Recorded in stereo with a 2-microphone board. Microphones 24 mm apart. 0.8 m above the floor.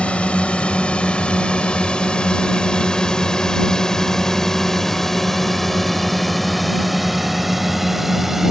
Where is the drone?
55° left (ahead or behind); by 8.5 s 15° right (ahead or behind).